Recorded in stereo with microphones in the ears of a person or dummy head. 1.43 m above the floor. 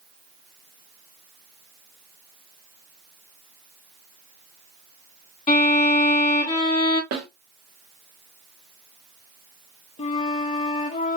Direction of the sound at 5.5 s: 35° left (ahead or behind).